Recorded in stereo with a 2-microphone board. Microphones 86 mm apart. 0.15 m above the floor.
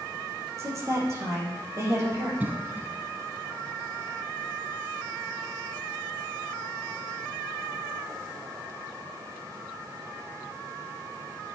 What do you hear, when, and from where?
0.6 s a woman speaking: 35° right (ahead or behind), 4.5 m
2.4 s a cough: 20° right (ahead or behind), 1.2 m